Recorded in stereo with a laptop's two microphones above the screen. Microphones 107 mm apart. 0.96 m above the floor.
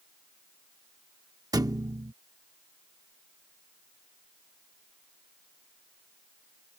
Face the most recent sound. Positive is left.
turn(degrees=-35)  # may be behind; listen again after turning